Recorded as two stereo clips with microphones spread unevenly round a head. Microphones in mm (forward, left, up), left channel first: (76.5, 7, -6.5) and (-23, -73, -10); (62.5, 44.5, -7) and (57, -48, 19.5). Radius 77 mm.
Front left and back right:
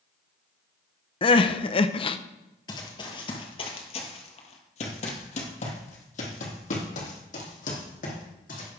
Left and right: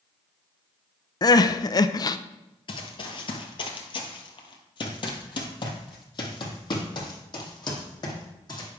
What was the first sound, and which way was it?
Crying, 40° left.